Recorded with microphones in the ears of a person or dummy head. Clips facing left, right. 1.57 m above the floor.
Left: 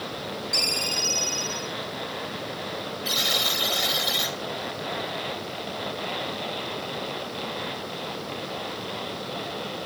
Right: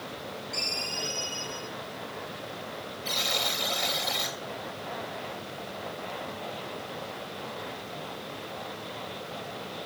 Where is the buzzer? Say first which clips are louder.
Even; 10° left (ahead or behind), 2.5 m.